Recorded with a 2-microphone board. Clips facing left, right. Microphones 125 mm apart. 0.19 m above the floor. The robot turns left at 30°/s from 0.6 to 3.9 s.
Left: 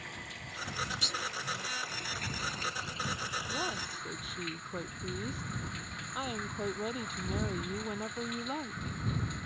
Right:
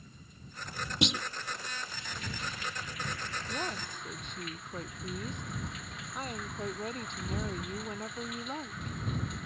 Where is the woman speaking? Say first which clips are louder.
Right 1 dB; 5° right (ahead or behind); by 9.0 s 10° left (ahead or behind).